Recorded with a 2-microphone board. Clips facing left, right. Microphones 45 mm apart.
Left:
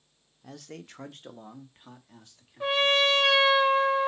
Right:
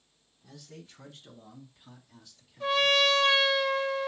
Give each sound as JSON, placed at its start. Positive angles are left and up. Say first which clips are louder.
{"t": 0.4, "sound": "a man speaking", "louder": "left 6 dB", "side_deg": 55, "distance_m": 0.5}
{"t": 2.6, "sound": "a trumpet", "louder": "left 1 dB", "side_deg": 25, "distance_m": 0.7}